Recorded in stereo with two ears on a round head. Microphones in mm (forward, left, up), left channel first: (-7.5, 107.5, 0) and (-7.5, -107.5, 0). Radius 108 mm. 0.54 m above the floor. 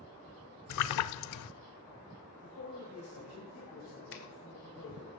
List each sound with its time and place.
0.7 s a splash: 75° left (ahead or behind), 0.5 m
2.4 s a man speaking: 65° left (ahead or behind), 3 m
4.1 s a finger snap: 55° left (ahead or behind), 1.8 m